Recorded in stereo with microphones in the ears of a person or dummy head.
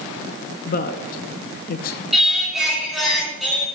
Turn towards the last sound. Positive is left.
turn(degrees=0)  # may be behind; listen again after turning